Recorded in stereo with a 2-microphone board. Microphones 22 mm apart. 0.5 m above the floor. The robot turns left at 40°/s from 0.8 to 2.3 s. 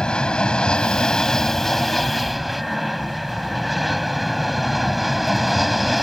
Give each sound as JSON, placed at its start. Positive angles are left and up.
{"t": 0.0, "sound": "an aircraft", "azimuth_deg": 55}